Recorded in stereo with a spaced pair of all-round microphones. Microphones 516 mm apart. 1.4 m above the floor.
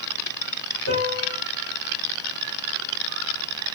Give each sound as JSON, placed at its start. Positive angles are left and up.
{"t": 0.9, "sound": "a piano", "side_deg": 30, "distance_m": 1.2}